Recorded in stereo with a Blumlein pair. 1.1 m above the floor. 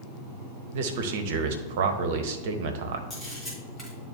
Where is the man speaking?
55° right, 1.0 m.